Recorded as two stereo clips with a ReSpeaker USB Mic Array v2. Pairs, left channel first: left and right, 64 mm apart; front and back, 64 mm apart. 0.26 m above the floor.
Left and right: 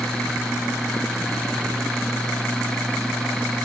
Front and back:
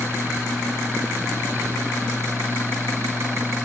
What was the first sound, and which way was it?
Only background noise.